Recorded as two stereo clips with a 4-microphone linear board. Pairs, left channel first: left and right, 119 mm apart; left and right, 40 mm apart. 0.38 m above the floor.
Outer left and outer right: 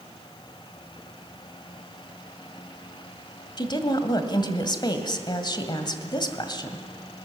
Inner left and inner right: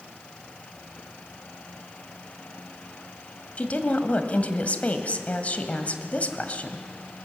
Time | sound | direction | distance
3.6 | a woman speaking | 40° left (ahead or behind) | 1.8 m